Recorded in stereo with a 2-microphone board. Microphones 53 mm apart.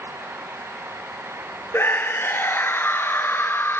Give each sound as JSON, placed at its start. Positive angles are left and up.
{"t": 1.7, "sound": "a scream", "side_deg": 45, "distance_m": 2.5}